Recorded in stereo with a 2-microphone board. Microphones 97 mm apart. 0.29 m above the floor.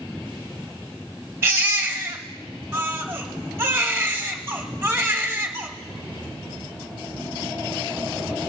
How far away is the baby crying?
About 1.0 m.